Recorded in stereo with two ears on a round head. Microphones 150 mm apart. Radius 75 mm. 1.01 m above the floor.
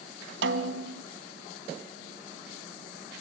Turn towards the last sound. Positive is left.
turn(degrees=-75)  # may be behind; listen again after turning